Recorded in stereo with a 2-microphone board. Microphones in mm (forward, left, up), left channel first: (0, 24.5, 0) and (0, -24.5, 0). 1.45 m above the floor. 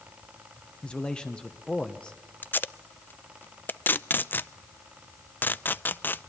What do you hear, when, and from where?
0.8 s a man speaking: 20° left (ahead or behind), 1.4 m
2.4 s tape being pulled: 40° left (ahead or behind), 0.5 m